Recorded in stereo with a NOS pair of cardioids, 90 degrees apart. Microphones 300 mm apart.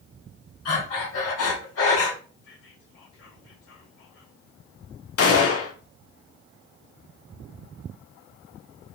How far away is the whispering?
About 2.5 m.